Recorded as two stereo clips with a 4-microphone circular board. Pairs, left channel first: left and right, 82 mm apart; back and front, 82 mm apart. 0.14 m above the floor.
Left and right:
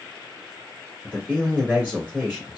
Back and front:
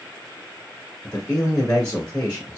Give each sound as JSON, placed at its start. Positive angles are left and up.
{"t": 1.0, "sound": "a man speaking", "azimuth_deg": -150, "distance_m": 1.3}